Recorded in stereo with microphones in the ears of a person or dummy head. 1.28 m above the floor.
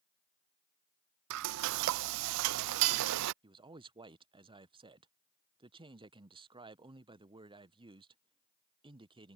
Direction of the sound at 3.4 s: 15° right (ahead or behind).